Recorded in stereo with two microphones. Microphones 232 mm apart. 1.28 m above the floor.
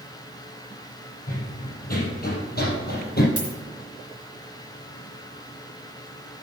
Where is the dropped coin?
55° left (ahead or behind), 3.5 m.